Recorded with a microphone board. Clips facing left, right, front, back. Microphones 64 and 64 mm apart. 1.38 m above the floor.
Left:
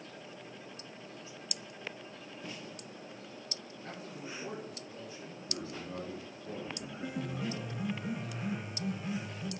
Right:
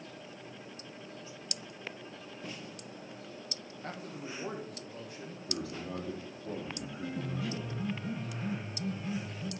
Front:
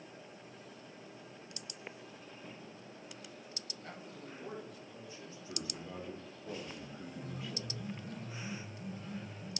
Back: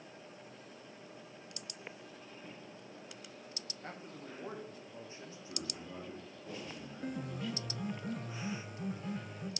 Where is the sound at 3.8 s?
125° right, 1.7 m.